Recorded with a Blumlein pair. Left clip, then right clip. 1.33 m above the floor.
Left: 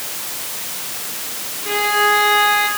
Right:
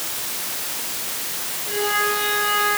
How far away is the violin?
About 8 m.